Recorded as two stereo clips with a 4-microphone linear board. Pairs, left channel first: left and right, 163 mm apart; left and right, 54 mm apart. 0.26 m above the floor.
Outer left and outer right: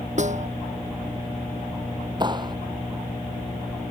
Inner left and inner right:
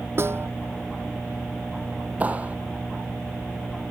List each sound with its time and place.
0.2 s a snare drum: 50° right (ahead or behind)
2.2 s a clap: 30° right (ahead or behind)